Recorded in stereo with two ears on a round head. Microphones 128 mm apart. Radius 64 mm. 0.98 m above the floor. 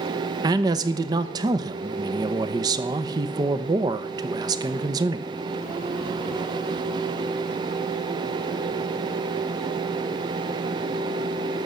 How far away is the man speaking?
About 0.8 m.